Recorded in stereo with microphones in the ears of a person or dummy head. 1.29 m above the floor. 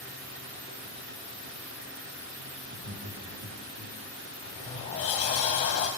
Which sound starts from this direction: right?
Laughter, at 2.6 s.